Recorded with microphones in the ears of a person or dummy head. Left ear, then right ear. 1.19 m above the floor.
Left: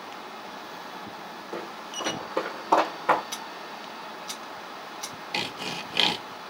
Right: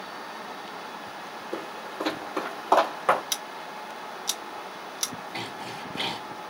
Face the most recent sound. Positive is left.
turn(degrees=70)  # may be behind; listen again after turning